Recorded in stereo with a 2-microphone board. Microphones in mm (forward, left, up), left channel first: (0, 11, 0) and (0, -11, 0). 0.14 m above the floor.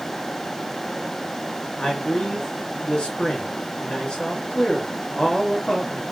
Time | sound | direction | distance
1.8 | a man speaking | 45° left (ahead or behind) | 2.5 m